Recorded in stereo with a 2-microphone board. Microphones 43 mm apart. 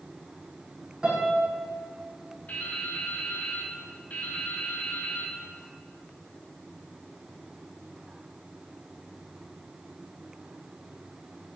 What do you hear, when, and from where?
1.0 s a piano: 20° right (ahead or behind), 6.5 m
2.5 s dripping: 40° left (ahead or behind), 4.5 m